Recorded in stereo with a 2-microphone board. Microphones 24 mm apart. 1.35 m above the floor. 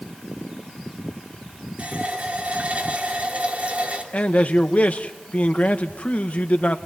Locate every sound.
1.8 s a running tap: 70° right (ahead or behind), 2.5 m
4.1 s a man speaking: 75° left (ahead or behind), 1.4 m